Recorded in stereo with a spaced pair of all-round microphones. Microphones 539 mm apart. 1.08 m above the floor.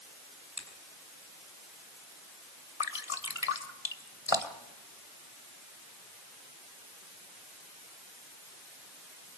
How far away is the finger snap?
About 5.5 m.